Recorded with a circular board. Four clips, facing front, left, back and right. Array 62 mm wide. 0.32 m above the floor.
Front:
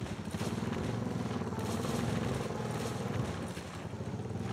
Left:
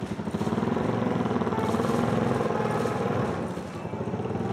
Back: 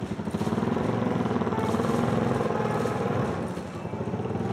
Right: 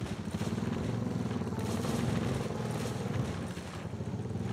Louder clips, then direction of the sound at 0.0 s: Left 7 dB, back 9 dB; 130° left.